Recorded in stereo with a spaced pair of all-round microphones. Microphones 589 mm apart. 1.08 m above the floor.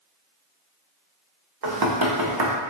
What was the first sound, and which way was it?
Knocking, 40° right (ahead or behind).